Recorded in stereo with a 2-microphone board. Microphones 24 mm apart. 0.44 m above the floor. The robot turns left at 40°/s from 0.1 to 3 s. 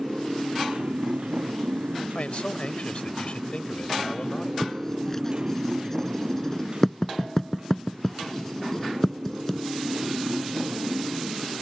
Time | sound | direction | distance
0.0 | a motorcycle | 30° right | ?
2.1 | a man speaking | 95° left | ?
4.6 | writing | 15° left (ahead or behind) | ?